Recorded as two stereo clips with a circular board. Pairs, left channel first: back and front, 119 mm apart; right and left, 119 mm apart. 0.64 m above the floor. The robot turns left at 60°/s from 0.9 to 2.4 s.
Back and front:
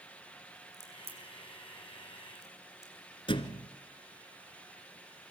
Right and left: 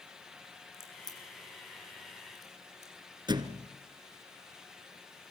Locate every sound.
0.7 s a crack: 25° right, 6.5 m; by 2.9 s 115° right, 6.5 m
3.3 s a thud: 140° left, 1.4 m